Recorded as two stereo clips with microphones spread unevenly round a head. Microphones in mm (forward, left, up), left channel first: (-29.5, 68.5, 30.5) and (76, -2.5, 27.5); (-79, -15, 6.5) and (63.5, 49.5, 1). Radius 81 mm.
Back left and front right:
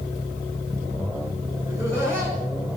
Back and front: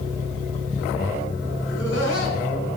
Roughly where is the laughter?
Behind right.